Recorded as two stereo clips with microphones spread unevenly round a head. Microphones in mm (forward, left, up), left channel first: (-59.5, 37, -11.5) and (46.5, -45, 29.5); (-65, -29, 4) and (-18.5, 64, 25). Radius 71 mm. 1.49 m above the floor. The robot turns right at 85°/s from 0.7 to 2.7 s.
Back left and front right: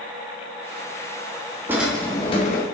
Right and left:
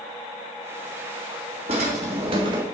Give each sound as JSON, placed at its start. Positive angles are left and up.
{"t": 1.7, "sound": "a drawer", "azimuth_deg": 30, "distance_m": 1.7}